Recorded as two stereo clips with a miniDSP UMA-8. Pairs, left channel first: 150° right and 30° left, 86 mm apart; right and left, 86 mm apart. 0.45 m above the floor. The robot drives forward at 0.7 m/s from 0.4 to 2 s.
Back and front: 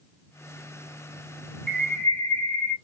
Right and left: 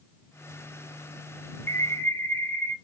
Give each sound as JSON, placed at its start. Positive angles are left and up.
{"t": 1.7, "sound": "a bird", "azimuth_deg": -75, "distance_m": 1.0}